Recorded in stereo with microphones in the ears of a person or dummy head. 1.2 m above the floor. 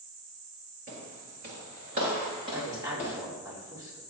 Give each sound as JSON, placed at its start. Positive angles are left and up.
{"t": 0.9, "sound": "footsteps", "side_deg": -35, "distance_m": 1.7}
{"t": 2.5, "sound": "a woman speaking", "side_deg": -15, "distance_m": 2.5}